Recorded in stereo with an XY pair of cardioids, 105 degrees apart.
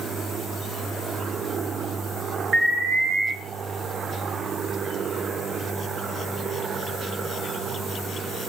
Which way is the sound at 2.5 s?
45° right.